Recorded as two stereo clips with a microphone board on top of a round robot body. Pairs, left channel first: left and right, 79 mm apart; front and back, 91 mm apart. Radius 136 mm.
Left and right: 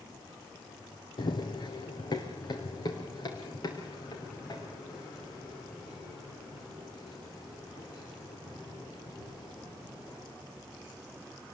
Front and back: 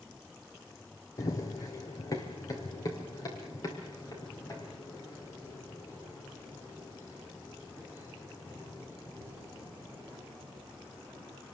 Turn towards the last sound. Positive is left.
turn(degrees=50)